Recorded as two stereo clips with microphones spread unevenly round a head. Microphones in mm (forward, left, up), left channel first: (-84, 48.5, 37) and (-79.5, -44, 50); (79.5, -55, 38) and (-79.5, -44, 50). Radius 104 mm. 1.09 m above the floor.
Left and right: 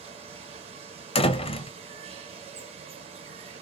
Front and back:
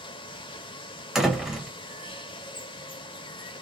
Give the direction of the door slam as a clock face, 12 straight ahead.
9 o'clock.